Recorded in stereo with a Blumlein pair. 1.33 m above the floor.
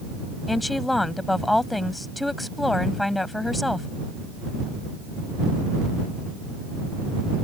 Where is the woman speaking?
5° left.